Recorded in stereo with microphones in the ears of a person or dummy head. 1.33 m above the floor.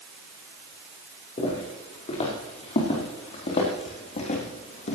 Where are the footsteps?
40° left (ahead or behind), 6 m; by 5.0 s 45° left (ahead or behind), 3 m.